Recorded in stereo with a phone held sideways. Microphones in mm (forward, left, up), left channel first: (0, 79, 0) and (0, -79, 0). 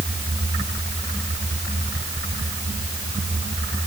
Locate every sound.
Only background noise.